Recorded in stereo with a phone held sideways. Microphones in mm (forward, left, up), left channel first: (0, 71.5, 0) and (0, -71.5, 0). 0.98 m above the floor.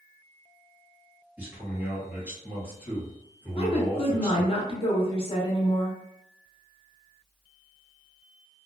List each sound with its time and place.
1.4 s a man speaking: 10° right (ahead or behind), 1.8 m
3.6 s a woman speaking: 40° left (ahead or behind), 0.9 m